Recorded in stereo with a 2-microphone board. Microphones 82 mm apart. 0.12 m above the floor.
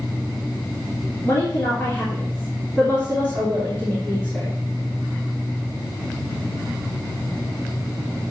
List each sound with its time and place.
1.2 s a woman speaking: 20° left (ahead or behind), 2.5 m